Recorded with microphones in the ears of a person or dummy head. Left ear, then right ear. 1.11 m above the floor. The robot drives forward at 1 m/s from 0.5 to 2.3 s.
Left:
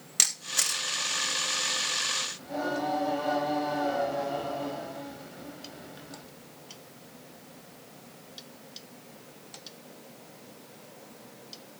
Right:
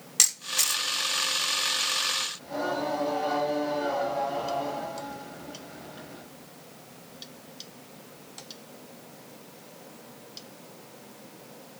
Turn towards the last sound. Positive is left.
turn(degrees=5)  # may be behind; listen again after turning